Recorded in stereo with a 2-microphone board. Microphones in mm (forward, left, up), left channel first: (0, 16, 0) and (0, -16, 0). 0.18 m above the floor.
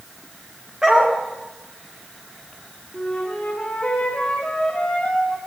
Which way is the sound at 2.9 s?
30° left (ahead or behind).